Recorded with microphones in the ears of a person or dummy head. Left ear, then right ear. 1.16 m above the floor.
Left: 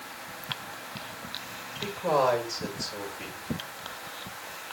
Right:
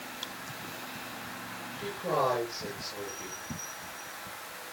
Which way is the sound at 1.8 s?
25° left (ahead or behind).